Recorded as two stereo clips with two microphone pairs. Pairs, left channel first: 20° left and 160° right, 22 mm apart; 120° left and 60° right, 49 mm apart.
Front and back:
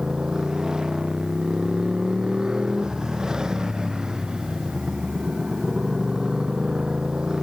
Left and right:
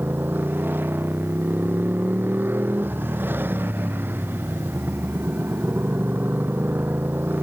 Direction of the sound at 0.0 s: 105° right.